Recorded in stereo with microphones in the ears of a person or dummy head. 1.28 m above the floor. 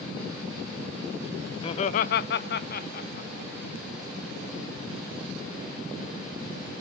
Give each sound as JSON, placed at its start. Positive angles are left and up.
{"t": 1.6, "sound": "laughter", "side_deg": 30, "distance_m": 0.6}